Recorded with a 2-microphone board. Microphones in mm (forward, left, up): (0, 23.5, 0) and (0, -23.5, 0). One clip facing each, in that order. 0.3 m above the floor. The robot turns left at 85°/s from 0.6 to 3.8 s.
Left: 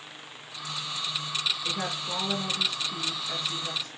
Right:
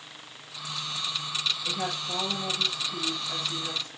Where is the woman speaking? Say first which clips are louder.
Even; 150° left, 4.5 m; by 3.9 s 30° right, 4.5 m.